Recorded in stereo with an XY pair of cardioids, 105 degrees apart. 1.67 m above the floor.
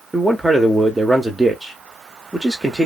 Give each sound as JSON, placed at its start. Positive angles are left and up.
{"t": 0.1, "sound": "a man speaking", "azimuth_deg": -15, "distance_m": 0.6}